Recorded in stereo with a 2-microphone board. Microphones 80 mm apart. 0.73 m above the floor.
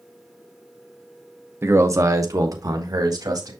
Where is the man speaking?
30° right (ahead or behind), 0.8 m; by 3.5 s 50° right (ahead or behind), 1.8 m.